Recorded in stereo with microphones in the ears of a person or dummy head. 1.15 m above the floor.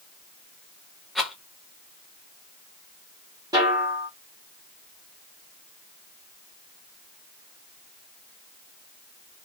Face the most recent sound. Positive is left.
turn(degrees=-20)  # may be behind; listen again after turning